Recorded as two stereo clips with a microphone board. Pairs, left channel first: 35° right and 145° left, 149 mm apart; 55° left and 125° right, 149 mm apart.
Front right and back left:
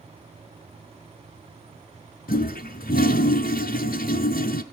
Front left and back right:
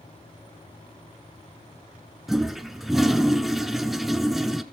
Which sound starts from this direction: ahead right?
A toilet flushing, at 2.3 s.